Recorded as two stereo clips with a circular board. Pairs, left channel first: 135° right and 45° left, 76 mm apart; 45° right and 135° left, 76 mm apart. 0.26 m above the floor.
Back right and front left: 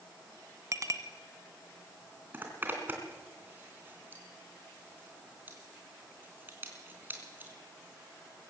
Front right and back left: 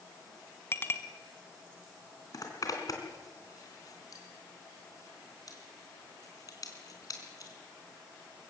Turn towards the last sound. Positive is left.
turn(degrees=-15)